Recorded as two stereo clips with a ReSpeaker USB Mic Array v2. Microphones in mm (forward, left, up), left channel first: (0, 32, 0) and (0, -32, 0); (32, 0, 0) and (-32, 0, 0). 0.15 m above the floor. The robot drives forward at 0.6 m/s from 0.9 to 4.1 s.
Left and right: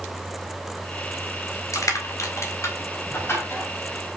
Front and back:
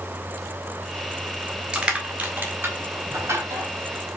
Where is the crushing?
105° left, 1.3 m; by 3.7 s 140° left, 1.9 m.